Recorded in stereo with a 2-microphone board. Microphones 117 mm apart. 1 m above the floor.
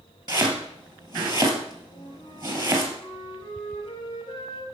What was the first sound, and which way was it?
Chopping, 35° right (ahead or behind).